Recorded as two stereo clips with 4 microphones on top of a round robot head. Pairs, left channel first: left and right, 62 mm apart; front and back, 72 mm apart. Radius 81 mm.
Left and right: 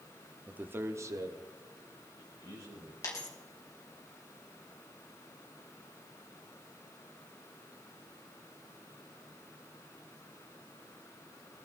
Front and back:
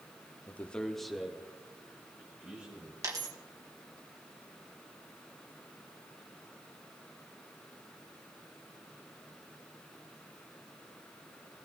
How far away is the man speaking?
About 1.1 m.